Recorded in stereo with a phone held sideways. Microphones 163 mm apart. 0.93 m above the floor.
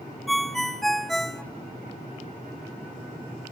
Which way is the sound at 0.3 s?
Centre (ahead or behind).